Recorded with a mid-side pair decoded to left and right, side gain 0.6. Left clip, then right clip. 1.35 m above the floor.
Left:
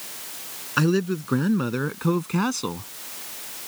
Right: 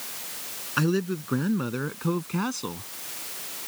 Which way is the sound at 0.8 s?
20° left.